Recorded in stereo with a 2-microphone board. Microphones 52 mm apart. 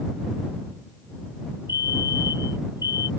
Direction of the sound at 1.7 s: 55° right (ahead or behind).